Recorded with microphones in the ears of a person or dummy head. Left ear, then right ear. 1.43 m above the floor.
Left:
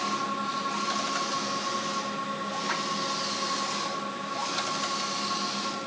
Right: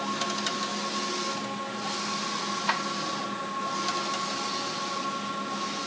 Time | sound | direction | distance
2.7 | a drawer | 75° right (ahead or behind) | 6 m